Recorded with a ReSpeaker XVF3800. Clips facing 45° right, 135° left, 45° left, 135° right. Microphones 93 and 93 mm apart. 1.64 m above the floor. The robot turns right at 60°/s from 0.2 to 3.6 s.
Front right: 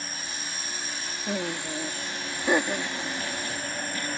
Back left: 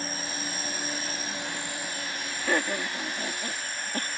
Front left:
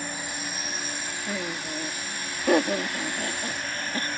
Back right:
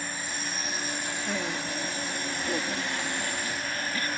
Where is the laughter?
45° right; by 4.1 s 95° left.